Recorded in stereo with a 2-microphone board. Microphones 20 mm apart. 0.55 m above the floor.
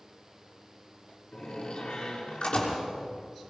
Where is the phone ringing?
I don't hear a phone ringing.